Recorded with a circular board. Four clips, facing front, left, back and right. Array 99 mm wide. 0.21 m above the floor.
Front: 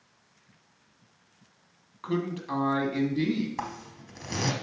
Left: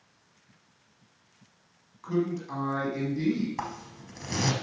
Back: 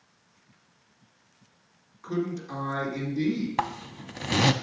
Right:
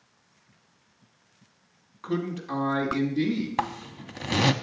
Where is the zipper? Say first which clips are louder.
Right 6 dB, back 6 dB; 135° right, 0.5 m.